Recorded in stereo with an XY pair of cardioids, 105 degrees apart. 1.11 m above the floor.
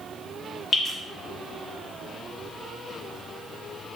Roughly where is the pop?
I don't hear a pop.